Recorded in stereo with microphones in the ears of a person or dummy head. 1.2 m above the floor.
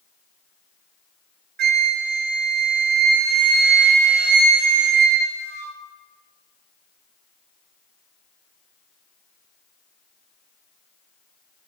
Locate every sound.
1.6 s a flute: 50° right (ahead or behind), 0.9 m